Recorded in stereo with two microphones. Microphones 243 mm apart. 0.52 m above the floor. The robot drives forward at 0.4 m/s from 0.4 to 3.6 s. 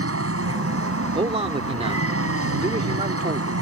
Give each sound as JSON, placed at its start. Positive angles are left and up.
{"t": 0.0, "sound": "an aircraft", "side_deg": -65}
{"t": 1.1, "sound": "a man speaking", "side_deg": -25}